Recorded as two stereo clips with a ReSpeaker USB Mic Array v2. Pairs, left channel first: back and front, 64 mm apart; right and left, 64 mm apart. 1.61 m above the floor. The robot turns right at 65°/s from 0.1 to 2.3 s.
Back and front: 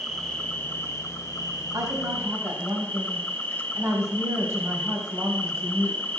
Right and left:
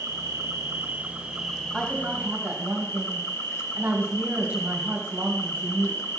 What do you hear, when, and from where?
0.0 s an insect: 95° left, 1.5 m; by 6.2 s 120° right, 1.5 m
1.7 s a woman speaking: straight ahead, 2.5 m; by 6.0 s 35° left, 2.5 m